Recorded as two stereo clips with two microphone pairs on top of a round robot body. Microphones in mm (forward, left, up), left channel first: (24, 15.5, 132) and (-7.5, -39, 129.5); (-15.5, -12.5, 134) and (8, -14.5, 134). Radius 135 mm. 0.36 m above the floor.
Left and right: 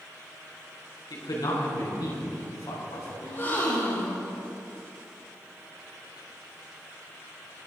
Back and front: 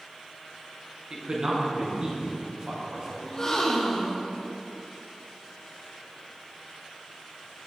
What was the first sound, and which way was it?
A man speaking, 50° left.